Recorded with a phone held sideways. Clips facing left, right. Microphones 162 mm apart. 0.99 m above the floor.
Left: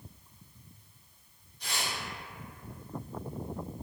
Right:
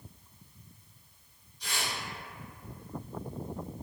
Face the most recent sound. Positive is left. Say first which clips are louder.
# even
turn(degrees=55)  # may be behind; listen again after turning